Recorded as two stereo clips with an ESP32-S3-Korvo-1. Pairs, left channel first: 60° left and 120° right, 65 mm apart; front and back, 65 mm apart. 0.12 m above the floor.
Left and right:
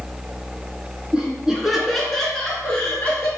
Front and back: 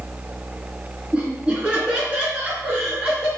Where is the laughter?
155° right, 1.1 m; by 3.3 s 115° left, 1.5 m.